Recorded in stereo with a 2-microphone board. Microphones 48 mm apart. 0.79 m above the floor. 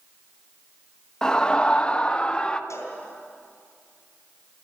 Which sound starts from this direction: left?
A cowbell, at 2.7 s.